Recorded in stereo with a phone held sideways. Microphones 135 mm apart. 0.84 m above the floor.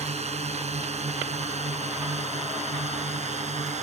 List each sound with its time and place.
0.0 s a drone: 55° right (ahead or behind)